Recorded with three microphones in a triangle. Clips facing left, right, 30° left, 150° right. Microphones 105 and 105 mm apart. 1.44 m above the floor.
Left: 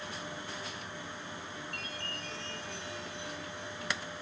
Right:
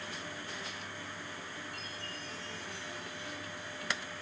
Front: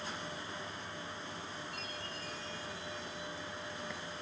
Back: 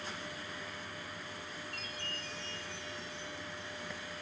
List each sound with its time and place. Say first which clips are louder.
1.7 s a chime: left 2 dB, front 1 dB; 115° left, 7 m